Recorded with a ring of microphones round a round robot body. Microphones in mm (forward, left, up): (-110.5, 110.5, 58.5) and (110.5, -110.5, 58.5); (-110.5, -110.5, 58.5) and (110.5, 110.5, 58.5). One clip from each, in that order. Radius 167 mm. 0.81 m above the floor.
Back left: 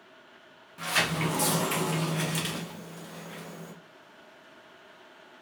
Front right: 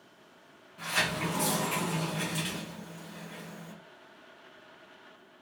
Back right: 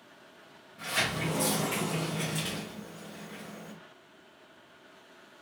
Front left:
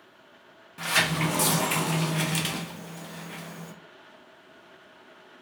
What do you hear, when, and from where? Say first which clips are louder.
0.8 s a sliding door: back left 2 dB, front left 6 dB; 65° left, 0.7 m